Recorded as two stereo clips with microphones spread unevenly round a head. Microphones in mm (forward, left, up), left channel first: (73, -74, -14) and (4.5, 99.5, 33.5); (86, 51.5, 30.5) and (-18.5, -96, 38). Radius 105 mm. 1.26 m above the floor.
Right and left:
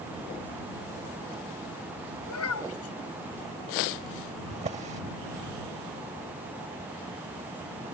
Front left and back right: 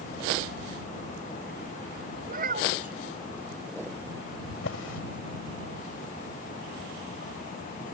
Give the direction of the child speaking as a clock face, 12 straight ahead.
3 o'clock.